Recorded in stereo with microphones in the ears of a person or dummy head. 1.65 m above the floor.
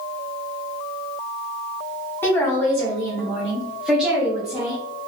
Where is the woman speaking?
10° left (ahead or behind), 1.1 m; by 4.8 s 10° right (ahead or behind), 1.1 m.